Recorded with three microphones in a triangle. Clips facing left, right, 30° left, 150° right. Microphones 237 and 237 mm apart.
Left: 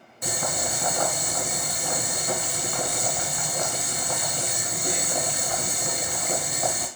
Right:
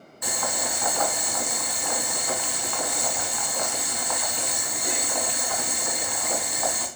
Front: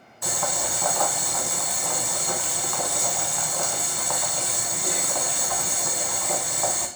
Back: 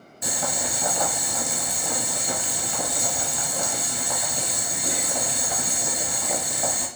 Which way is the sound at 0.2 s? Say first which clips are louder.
Left 1 dB, even; 145° left.